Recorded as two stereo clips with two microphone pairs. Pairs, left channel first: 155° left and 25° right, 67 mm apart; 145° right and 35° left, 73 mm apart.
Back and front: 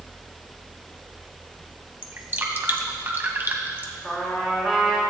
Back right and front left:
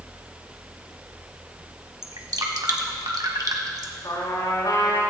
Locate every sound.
2.0 s dripping: 25° left, 1.2 m
4.0 s a trumpet: 125° right, 3.5 m